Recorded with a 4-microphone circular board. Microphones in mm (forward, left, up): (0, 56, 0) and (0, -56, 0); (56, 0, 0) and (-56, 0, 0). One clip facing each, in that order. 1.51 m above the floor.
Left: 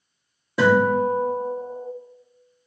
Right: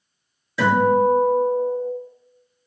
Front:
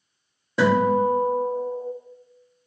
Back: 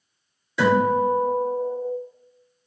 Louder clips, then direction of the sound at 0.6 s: Right 1 dB, even; 45° left.